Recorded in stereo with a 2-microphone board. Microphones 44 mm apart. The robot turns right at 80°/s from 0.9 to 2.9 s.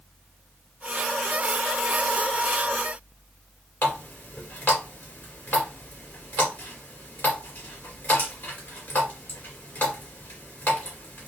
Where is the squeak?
No squeak in this recording.